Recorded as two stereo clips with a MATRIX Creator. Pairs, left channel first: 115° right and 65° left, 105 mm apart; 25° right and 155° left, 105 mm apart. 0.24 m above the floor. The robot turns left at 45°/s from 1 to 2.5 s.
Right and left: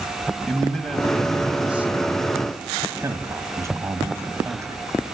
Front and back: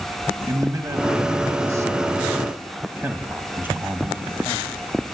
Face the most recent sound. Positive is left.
turn(degrees=100)